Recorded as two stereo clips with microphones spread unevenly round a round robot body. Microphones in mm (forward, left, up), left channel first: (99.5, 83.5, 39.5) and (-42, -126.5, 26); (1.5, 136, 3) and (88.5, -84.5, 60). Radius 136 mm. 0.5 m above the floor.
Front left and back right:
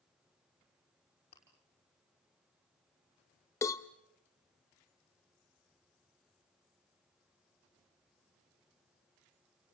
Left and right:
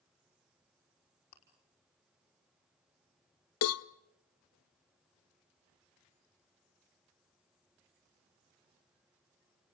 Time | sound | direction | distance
1.3 | chewing | 125° left | 5 m
3.6 | a cowbell | 135° left | 0.5 m